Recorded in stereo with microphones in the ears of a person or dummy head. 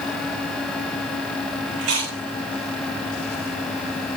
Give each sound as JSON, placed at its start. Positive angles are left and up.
{"t": 1.8, "sound": "chewing", "side_deg": -80, "distance_m": 8.5}